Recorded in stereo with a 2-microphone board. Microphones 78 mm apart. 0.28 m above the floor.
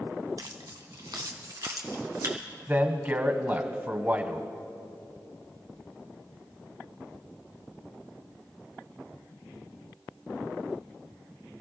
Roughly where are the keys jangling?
Right.